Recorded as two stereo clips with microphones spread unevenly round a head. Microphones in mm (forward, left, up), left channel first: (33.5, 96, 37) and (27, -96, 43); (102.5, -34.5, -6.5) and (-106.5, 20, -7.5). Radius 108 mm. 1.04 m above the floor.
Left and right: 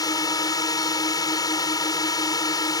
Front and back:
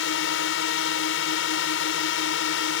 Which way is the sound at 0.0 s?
15° left.